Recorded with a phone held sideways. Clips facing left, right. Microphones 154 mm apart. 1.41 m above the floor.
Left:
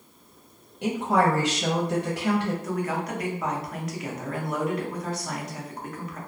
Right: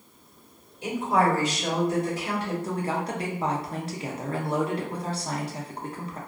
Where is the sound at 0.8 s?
70° left (ahead or behind), 0.6 m.